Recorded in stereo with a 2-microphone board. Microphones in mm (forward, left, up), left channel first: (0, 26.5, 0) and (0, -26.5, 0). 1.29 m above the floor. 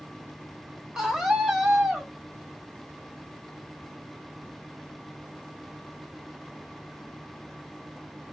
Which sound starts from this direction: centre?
A scream, at 0.9 s.